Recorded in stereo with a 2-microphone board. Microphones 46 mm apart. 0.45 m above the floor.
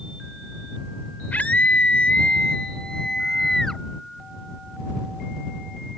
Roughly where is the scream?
Left.